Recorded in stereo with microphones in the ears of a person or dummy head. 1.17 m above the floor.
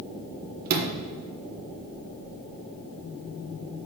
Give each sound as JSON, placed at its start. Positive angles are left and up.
{"t": 0.7, "sound": "a sliding door", "side_deg": -45, "distance_m": 0.9}